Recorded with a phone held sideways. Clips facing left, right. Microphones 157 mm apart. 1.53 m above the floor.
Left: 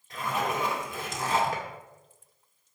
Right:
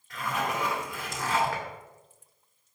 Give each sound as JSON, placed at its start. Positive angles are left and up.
{"t": 0.1, "sound": "a zipper", "side_deg": 25, "distance_m": 2.5}